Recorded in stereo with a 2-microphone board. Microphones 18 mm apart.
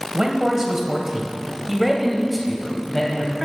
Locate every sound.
0.1 s a man speaking: 40° right (ahead or behind), 2 m; by 3.5 s 15° left (ahead or behind), 2.5 m